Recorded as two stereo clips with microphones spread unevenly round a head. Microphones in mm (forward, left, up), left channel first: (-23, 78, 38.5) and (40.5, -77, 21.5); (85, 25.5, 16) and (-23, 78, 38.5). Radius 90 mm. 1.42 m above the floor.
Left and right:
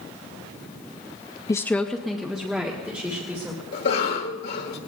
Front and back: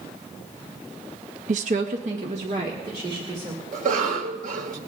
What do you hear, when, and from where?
1.5 s a woman speaking: 175° right, 0.5 m; by 3.6 s 150° right, 3 m
3.7 s a cough: 145° left, 2.5 m